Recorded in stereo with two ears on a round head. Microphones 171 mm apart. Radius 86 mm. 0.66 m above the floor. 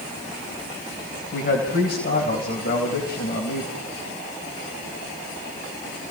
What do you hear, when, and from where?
1.3 s a man speaking: 55° left (ahead or behind), 4 m